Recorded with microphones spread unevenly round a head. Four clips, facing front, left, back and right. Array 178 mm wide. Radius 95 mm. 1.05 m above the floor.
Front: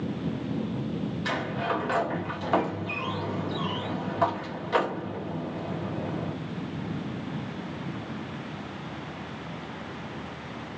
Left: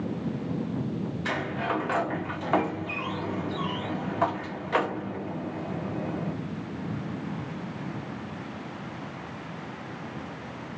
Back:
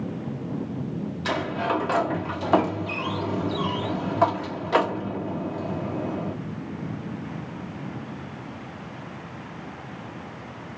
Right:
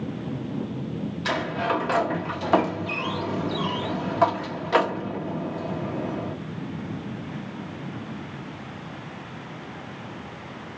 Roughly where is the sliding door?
Behind right.